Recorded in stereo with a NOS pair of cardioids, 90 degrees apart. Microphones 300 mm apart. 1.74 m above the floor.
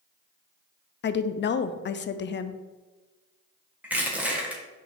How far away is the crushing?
About 1.7 m.